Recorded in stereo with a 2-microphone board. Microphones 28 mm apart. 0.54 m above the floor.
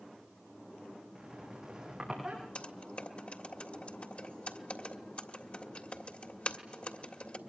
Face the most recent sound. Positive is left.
turn(degrees=50)  # may be behind; listen again after turning